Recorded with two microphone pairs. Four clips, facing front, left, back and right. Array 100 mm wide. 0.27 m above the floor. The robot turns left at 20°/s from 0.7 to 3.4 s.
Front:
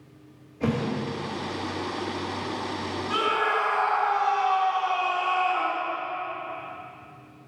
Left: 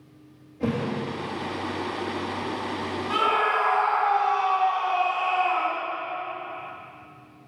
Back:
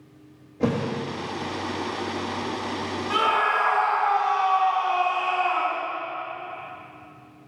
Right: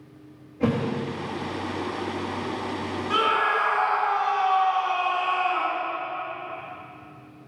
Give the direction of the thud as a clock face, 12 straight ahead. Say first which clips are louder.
Right 3 dB, back 2 dB; 5 o'clock.